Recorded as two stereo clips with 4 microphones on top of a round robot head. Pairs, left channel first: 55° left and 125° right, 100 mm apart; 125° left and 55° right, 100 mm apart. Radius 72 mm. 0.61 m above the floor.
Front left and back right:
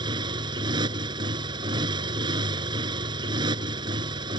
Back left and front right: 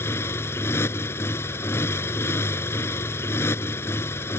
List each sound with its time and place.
0.0 s a motorcycle: 170° right